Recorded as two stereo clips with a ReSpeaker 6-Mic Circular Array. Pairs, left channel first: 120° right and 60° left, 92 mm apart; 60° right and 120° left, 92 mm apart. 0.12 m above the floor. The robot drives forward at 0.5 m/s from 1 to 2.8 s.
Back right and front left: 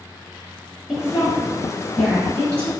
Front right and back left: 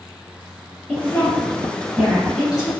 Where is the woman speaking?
15° right, 1.1 m; by 2.7 s 165° right, 1.1 m.